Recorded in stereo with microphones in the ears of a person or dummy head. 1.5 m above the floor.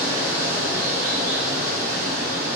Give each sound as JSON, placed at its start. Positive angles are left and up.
{"t": 0.0, "sound": "running water", "side_deg": -60, "distance_m": 1.9}